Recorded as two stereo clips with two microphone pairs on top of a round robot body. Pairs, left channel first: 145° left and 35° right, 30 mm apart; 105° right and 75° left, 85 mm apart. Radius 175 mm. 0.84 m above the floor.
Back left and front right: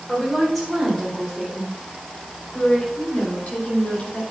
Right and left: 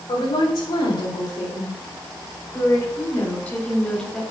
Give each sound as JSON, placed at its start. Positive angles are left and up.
{"t": 0.1, "sound": "a woman speaking", "azimuth_deg": -125, "distance_m": 4.0}